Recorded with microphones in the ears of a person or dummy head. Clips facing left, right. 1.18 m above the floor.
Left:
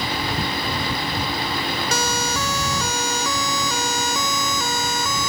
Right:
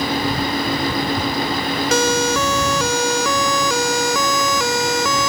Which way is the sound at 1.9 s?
60° right (ahead or behind).